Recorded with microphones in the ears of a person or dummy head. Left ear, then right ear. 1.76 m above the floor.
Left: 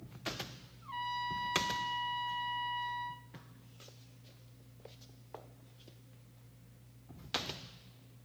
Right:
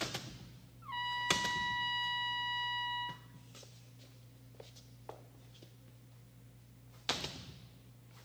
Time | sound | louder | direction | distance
0.8 | a trumpet | right 2 dB | 5° right (ahead or behind) | 0.5 m